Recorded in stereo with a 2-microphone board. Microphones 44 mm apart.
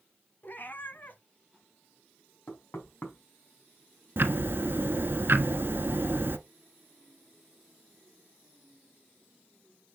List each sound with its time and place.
0.4 s a cat meowing: 45° left (ahead or behind), 1.1 m
2.5 s knocking: 50° left (ahead or behind), 3 m
4.2 s ticking: 55° right (ahead or behind), 0.9 m